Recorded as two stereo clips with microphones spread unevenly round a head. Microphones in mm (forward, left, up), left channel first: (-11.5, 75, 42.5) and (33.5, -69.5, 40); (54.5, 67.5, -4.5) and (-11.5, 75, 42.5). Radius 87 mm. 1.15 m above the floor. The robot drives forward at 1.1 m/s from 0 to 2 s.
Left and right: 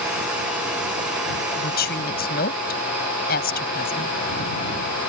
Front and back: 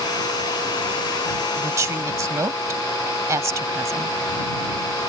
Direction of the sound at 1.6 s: 135° left.